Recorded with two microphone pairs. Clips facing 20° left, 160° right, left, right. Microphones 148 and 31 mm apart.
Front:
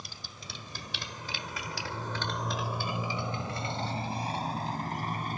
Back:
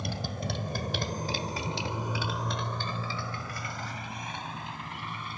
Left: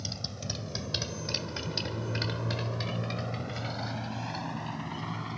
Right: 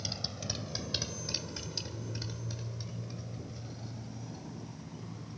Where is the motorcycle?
175° right; by 5.4 s 65° left.